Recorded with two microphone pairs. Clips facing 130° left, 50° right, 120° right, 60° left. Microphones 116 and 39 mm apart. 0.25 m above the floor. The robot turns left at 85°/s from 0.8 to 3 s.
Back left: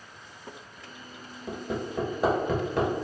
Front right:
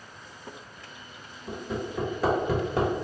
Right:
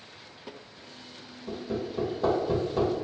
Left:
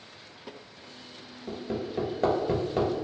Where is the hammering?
120° left, 1.7 m; by 2.9 s straight ahead, 1.7 m.